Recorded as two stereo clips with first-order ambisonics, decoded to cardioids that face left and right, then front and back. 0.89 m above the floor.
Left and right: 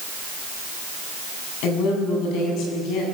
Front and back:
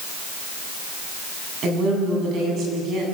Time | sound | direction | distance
1.6 | a woman speaking | 125° left | 7.5 m